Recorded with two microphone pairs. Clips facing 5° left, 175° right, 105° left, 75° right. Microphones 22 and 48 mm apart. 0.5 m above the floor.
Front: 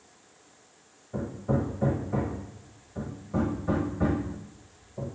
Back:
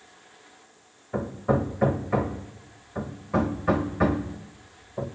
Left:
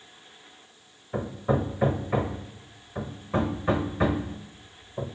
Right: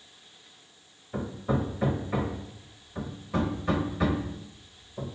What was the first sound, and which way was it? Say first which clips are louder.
Hammering: back 4 dB, left 3 dB; 175° left.